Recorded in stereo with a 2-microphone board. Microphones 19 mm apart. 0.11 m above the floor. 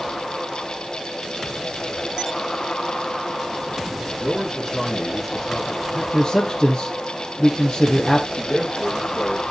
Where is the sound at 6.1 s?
30° left (ahead or behind), 1.9 m.